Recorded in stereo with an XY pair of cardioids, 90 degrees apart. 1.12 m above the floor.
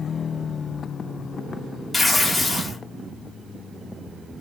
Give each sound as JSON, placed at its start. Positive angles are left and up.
{"t": 1.9, "sound": "tearing paper", "azimuth_deg": 15, "distance_m": 2.5}